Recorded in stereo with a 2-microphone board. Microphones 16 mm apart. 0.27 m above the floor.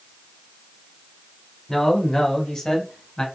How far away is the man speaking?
About 1.9 m.